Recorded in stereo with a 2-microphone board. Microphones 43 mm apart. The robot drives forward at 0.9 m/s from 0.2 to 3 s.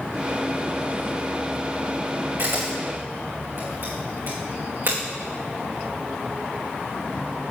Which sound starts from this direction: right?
A camera shutter, at 2.4 s.